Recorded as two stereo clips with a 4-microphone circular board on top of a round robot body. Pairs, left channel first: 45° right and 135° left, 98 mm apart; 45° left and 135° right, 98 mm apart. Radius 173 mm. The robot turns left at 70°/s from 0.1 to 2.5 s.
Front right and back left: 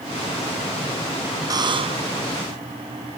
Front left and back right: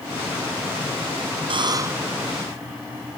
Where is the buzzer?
170° right; by 2.1 s 145° left.